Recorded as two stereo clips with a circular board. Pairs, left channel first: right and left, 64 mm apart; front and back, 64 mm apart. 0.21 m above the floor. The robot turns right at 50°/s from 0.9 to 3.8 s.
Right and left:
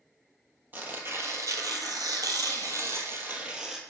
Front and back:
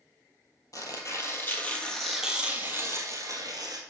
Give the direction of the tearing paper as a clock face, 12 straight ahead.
11 o'clock.